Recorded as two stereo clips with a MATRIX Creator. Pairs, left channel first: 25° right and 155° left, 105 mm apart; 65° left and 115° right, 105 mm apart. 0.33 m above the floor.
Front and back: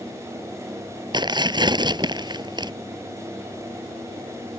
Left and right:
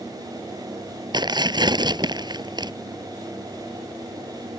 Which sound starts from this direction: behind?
Tearing paper, at 1.1 s.